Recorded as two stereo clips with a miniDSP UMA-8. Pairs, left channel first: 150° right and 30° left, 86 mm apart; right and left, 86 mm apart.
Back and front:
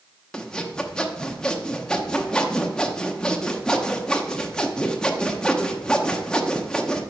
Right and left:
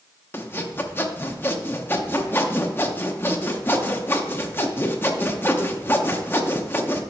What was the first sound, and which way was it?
Sawing, 85° right.